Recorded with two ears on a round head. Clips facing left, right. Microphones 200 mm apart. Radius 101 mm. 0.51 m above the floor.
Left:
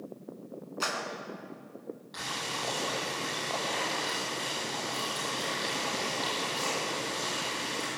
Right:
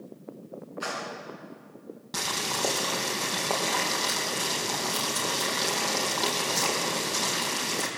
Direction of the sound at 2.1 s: 65° right (ahead or behind).